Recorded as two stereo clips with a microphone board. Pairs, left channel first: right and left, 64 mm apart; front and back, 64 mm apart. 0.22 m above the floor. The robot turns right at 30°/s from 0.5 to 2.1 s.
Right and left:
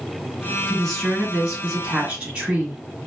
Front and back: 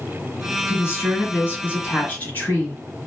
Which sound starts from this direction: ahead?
A woman speaking, at 0.7 s.